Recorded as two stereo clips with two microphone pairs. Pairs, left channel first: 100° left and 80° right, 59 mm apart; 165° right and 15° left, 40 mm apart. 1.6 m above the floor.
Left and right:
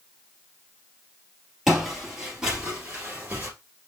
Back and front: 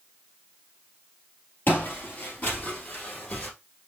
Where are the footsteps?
165° right, 2.5 m; by 3.5 s 135° right, 2 m.